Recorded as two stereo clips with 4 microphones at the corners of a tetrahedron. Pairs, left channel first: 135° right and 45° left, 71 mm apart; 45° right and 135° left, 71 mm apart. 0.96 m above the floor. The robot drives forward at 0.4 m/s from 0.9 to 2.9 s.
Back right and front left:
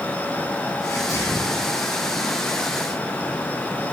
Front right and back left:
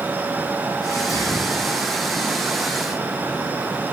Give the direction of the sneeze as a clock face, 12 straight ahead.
3 o'clock.